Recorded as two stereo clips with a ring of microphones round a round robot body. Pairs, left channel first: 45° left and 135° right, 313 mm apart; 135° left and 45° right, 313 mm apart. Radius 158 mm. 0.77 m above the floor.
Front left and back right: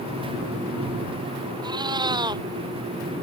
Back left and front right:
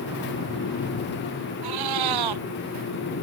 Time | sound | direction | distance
1.6 | a cat meowing | 60° right | ?